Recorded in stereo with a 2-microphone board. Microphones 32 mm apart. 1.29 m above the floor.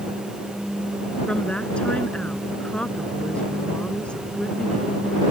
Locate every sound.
1.3 s a woman speaking: 30° left (ahead or behind)